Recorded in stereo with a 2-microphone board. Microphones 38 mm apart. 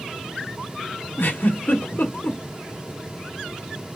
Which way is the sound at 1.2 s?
80° left.